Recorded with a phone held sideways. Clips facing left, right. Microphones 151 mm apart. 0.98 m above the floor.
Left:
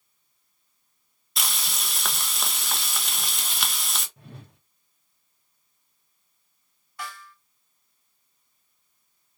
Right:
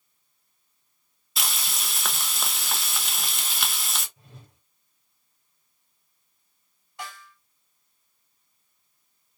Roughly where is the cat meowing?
No cat meowing in this recording.